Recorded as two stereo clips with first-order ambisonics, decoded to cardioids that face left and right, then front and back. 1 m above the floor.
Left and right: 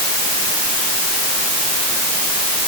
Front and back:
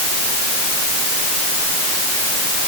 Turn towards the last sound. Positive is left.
No sound to turn to.